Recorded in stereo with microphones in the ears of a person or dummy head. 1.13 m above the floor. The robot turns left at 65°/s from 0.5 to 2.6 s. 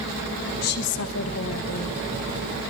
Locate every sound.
0.6 s a woman speaking: 125° left, 1.6 m; by 2.0 s 35° left, 1.6 m